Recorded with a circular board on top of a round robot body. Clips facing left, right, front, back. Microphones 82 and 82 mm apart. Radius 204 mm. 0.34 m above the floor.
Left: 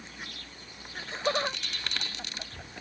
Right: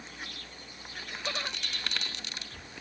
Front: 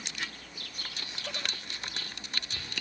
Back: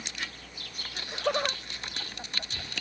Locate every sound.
0.9 s laughter: 150° left; by 2.8 s 140° left